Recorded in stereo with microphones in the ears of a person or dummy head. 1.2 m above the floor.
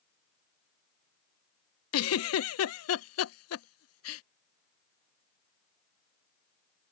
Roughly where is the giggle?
Left.